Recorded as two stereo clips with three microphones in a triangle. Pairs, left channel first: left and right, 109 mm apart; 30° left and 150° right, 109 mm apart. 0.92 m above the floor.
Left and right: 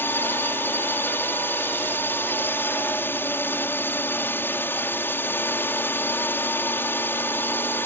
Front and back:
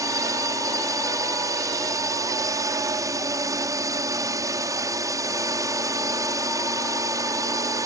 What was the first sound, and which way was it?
A drone, 155° left.